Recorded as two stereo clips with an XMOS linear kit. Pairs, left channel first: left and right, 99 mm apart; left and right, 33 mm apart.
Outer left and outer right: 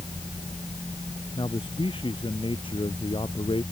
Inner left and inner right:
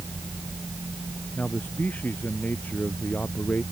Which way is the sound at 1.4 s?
60° left (ahead or behind).